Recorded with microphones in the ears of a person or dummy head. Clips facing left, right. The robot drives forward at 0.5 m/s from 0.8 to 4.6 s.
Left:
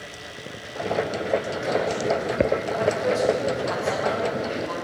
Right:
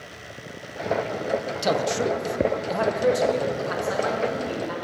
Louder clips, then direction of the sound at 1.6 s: Right 1 dB; 80° right.